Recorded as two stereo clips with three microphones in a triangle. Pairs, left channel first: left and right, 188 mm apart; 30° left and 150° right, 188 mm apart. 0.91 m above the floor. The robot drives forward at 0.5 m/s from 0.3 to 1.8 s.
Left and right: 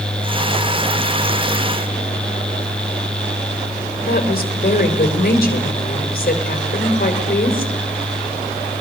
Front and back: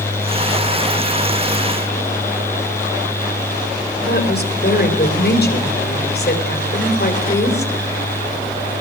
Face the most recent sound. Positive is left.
turn(degrees=55)